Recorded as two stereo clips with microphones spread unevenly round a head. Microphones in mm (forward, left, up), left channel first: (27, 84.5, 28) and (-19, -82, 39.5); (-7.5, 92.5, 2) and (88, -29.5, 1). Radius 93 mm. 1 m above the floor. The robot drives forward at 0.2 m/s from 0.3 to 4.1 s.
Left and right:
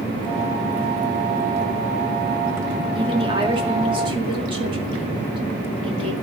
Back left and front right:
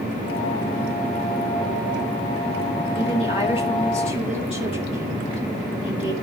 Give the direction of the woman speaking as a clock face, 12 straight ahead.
6 o'clock.